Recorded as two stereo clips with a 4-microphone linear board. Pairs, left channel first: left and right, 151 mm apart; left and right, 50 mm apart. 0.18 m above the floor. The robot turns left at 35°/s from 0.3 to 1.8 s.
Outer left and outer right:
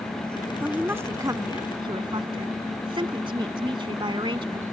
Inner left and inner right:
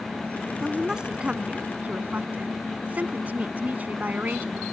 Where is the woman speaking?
10° right; by 4.6 s 55° right.